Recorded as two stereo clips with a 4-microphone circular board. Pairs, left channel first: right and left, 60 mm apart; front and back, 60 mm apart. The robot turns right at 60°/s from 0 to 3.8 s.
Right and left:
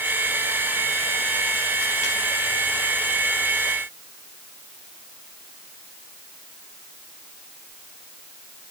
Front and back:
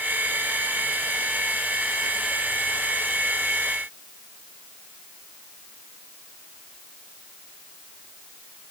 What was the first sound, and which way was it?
Only background noise.